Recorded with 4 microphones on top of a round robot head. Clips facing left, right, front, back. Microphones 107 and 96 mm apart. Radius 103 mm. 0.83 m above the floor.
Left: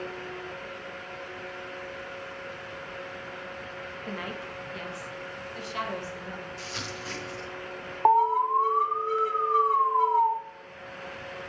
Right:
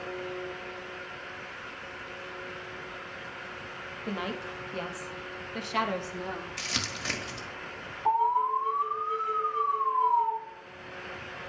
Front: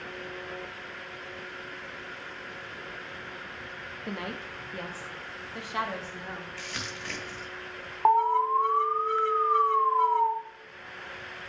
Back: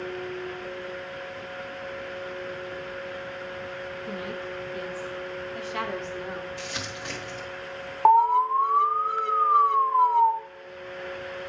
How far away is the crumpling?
About 1.5 m.